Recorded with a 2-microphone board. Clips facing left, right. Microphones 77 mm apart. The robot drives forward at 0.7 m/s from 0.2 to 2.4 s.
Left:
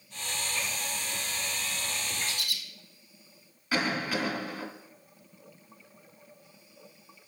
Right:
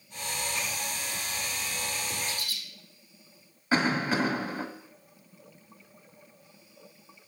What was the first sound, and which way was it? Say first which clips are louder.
A bird: even; 65° left (ahead or behind).